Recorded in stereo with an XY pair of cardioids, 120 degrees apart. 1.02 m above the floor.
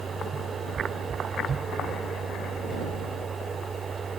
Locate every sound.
0.0 s a machine running: 35° right